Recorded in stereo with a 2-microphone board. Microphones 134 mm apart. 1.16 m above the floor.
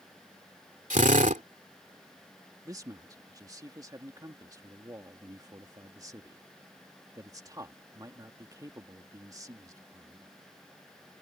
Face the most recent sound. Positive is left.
turn(degrees=-25)  # may be behind; listen again after turning